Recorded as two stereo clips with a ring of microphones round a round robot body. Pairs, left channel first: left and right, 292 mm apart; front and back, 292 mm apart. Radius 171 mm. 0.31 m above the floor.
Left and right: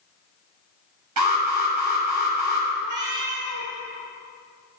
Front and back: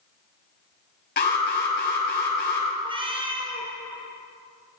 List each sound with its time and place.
1.2 s an alarm: 60° right, 5 m
2.8 s a cat meowing: 105° right, 2.5 m